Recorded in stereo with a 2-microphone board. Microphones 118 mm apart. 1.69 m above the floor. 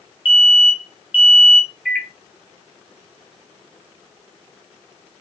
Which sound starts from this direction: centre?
A microwave, at 1.9 s.